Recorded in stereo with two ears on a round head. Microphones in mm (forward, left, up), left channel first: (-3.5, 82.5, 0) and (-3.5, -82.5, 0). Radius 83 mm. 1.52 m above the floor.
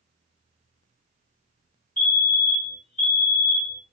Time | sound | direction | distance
2.0 | a fire alarm | 45° left (ahead or behind) | 2.5 m